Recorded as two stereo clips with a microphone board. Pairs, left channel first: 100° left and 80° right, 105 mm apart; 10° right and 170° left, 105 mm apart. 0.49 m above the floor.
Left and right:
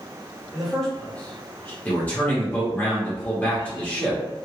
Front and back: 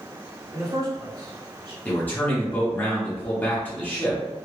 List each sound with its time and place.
0.5 s a man speaking: 165° right, 1.5 m; by 1.8 s 160° left, 2 m
1.9 s a man speaking: 45° left, 1.2 m